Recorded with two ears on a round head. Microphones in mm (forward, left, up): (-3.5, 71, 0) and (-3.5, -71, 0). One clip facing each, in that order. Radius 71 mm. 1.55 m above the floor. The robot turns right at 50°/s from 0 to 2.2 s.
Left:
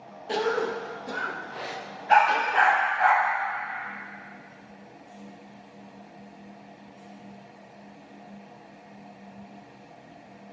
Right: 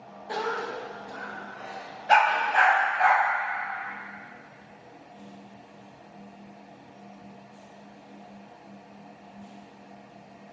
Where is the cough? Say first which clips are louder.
Left 5 dB; 25° left, 0.6 m; by 2.9 s 120° left, 0.6 m.